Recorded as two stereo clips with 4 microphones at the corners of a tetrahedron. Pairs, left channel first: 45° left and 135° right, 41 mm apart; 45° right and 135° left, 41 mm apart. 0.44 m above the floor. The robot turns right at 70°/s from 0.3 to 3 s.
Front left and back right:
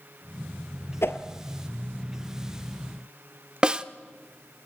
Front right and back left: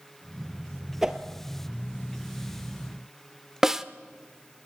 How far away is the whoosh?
About 1.8 m.